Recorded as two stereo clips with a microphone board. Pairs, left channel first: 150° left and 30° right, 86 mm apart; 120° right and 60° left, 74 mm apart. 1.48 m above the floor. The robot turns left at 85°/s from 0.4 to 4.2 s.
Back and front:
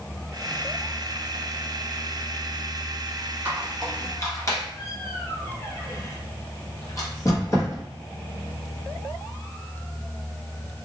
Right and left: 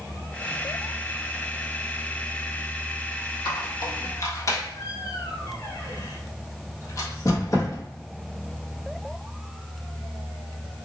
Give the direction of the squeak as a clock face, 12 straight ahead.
3 o'clock.